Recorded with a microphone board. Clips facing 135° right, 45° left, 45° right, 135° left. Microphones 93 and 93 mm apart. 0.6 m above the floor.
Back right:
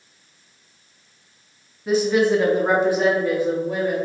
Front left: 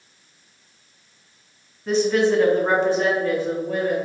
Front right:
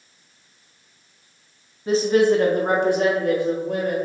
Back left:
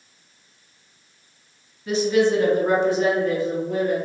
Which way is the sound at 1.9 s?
55° right.